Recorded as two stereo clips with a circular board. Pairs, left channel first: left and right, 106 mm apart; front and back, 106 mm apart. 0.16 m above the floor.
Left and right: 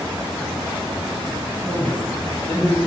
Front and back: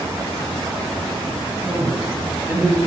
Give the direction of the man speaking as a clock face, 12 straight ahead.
5 o'clock.